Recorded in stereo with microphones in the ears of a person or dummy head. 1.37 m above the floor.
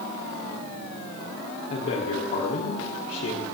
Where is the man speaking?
55° left (ahead or behind), 3 m.